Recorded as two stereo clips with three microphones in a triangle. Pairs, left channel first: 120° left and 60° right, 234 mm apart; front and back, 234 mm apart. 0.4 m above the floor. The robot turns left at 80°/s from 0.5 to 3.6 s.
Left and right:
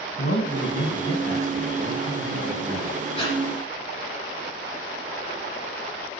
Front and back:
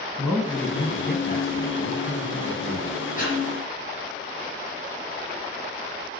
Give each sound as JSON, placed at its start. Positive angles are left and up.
{"t": 0.2, "sound": "a man speaking", "azimuth_deg": 90, "distance_m": 2.5}
{"t": 3.2, "sound": "breathing", "azimuth_deg": 55, "distance_m": 3.0}